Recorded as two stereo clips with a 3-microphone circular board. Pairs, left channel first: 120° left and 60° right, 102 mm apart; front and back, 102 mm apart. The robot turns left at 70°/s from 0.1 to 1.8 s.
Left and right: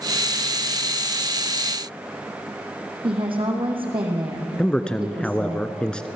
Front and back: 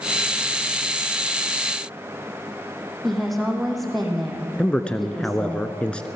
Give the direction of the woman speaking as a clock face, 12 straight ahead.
3 o'clock.